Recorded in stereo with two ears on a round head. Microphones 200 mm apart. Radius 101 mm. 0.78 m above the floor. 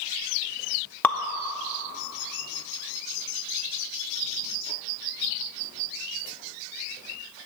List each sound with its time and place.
1.0 s dripping: 10° left (ahead or behind), 0.5 m